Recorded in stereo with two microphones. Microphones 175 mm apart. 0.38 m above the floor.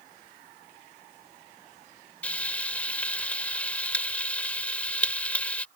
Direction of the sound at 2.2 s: 10° left (ahead or behind).